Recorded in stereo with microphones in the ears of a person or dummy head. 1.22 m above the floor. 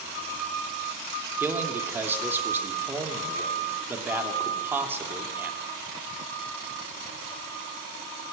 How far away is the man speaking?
About 2.5 m.